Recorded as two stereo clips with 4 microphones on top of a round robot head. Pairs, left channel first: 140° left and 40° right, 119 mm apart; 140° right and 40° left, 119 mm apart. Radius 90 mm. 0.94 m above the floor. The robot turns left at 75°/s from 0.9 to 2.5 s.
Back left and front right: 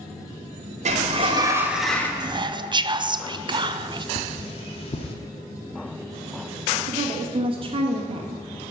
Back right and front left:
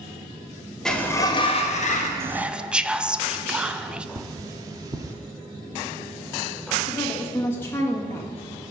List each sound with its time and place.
0.8 s a sliding door: 55° right, 1.2 m; by 2.1 s 145° right, 1.2 m
2.2 s whispering: 15° right, 0.6 m; by 4.0 s 40° right, 0.6 m
4.2 s cutlery clinking: 100° left, 0.9 m
6.9 s a woman speaking: 70° right, 1.7 m